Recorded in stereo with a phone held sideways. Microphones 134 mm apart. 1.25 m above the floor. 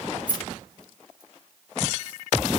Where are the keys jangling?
35° left (ahead or behind), 0.9 m; by 2.2 s 30° left (ahead or behind), 2 m.